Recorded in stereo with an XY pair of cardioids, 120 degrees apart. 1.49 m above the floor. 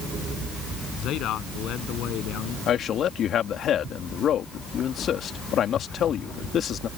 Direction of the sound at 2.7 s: 55° left.